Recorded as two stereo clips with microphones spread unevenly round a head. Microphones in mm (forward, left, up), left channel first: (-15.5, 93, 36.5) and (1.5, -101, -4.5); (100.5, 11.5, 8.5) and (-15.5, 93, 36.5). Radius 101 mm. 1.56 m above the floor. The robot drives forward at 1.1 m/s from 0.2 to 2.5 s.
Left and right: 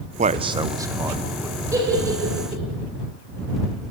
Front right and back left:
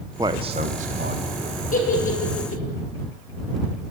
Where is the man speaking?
145° right, 0.7 m; by 1.6 s 170° right, 2 m.